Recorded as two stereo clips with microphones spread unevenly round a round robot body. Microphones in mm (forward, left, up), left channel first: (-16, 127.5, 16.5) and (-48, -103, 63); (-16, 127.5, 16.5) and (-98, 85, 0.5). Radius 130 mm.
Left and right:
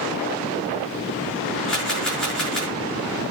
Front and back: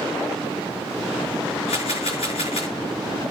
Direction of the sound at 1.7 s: 5° right.